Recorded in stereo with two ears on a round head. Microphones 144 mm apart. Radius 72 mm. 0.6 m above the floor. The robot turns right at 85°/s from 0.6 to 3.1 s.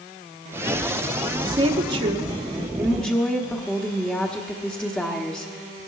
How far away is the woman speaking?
About 1.2 m.